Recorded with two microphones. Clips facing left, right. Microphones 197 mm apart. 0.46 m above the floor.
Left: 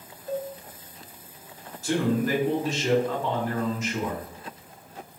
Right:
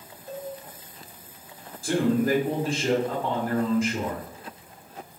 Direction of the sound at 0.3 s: 30° left (ahead or behind).